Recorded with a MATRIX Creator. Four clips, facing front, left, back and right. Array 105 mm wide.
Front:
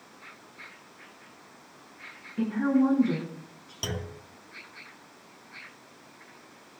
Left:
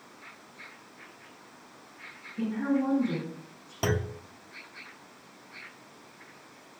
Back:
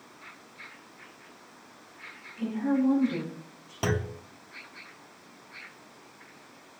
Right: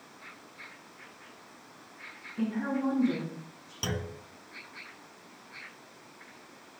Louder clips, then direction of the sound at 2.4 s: Left 3 dB, front 3 dB; 5° right.